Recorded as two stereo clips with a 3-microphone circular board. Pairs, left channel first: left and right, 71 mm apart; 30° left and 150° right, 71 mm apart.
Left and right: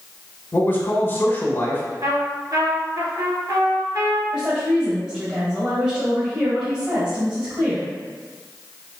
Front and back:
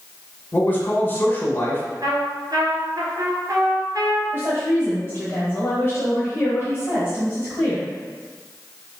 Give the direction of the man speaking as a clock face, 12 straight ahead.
10 o'clock.